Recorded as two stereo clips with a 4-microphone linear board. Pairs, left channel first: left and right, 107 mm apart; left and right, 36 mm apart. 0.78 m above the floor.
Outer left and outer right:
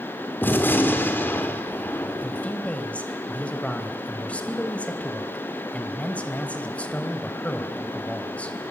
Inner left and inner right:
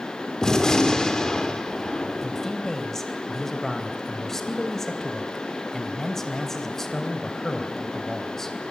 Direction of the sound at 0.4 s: 20° left (ahead or behind).